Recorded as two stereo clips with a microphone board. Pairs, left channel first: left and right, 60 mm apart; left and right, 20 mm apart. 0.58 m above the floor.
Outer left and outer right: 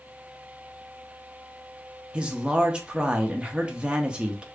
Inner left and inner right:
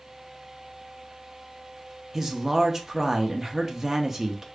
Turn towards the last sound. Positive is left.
turn(degrees=-20)  # may be behind; listen again after turning